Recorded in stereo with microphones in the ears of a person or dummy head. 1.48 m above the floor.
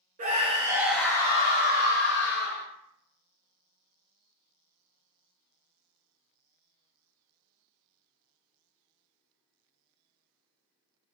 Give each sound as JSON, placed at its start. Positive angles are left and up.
{"t": 0.2, "sound": "a scream", "side_deg": -45, "distance_m": 0.9}